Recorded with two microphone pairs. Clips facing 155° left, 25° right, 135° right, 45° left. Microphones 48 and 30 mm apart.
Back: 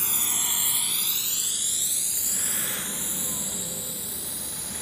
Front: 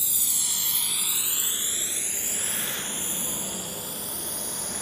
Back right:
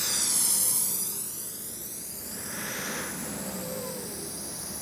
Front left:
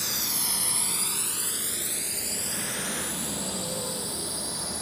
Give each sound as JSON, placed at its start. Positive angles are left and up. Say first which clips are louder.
{"t": 0.0, "sound": "a drone", "louder": "back 4 dB, even", "azimuth_deg": 130}